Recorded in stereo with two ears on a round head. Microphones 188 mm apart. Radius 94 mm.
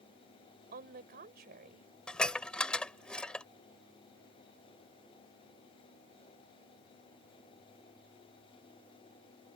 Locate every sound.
0.7 s a woman speaking: 45° right (ahead or behind)
2.1 s dishes clattering: 5° left (ahead or behind)